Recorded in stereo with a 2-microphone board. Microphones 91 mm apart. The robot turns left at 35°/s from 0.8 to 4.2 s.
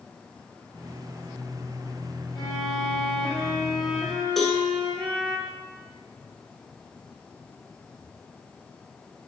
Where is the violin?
55° left, 4 m; by 5.4 s 10° right, 4 m.